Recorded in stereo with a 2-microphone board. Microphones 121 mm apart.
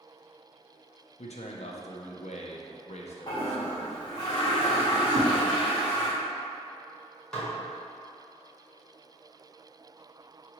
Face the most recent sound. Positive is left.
turn(degrees=5)  # may be behind; listen again after turning